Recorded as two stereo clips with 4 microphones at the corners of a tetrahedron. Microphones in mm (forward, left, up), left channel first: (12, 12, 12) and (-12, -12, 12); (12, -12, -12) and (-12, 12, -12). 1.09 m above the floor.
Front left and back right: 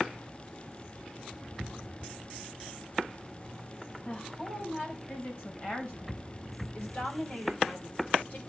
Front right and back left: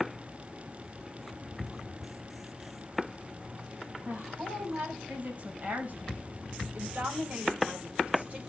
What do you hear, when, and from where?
4.0 s a woman speaking: 95° left, 6.5 m; by 8.4 s 85° left, 3.5 m